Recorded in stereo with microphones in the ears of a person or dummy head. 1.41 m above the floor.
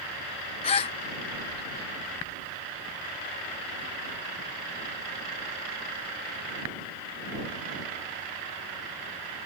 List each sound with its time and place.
0.6 s a gasp: 35° left (ahead or behind)